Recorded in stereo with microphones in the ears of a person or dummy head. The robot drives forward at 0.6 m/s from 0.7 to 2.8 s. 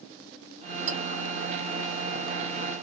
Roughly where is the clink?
Right.